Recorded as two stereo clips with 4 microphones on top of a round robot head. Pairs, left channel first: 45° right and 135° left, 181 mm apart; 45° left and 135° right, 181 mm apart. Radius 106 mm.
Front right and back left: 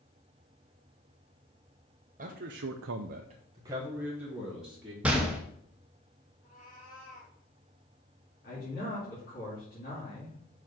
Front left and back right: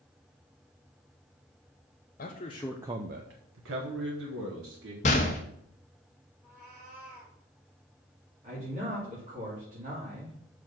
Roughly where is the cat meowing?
Right.